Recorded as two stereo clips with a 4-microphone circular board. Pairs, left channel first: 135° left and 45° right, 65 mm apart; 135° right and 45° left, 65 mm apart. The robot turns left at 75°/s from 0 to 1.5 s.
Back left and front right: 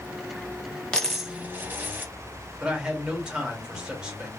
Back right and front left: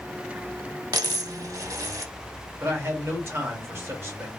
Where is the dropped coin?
55° left, 0.7 m; by 2.1 s 15° left, 0.7 m.